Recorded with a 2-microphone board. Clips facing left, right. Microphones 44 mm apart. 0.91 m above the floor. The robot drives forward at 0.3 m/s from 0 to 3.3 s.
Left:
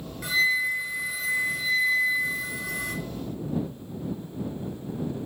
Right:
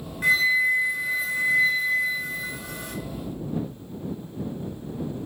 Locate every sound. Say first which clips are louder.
0.2 s a flute: right 4 dB; 50° right (ahead or behind), 1.7 m; by 2.9 s 35° right (ahead or behind), 2 m